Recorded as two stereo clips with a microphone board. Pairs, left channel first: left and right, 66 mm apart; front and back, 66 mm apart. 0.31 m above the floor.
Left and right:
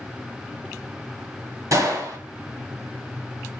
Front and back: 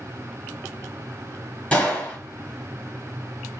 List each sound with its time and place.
1.7 s a gunshot: 70° right, 1.4 m